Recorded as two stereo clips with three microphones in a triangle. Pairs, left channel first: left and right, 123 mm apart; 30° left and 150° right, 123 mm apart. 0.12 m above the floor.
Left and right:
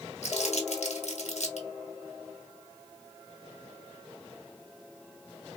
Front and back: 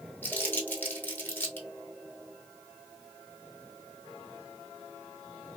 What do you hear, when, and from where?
0.2 s crumpling: 105° left, 1.1 m